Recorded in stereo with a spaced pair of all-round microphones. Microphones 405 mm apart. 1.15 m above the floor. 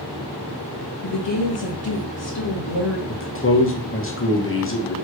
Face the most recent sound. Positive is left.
turn(degrees=30)  # may be behind; listen again after turning